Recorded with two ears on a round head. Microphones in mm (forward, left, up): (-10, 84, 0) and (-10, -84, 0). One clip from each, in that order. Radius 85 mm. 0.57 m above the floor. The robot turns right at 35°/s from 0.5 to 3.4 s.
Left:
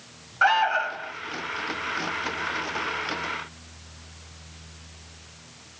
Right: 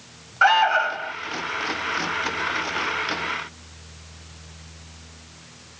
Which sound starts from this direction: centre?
An alarm, at 0.4 s.